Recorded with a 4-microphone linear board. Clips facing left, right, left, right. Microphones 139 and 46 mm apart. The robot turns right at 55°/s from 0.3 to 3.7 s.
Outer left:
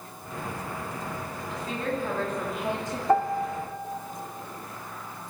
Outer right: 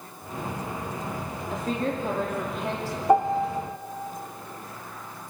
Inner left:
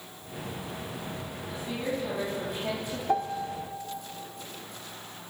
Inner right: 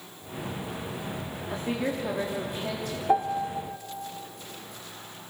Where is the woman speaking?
55° right, 3 m; by 3.0 s 30° left, 3 m.